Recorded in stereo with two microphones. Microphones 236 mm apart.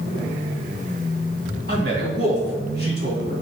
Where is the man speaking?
45° right (ahead or behind), 2.5 m.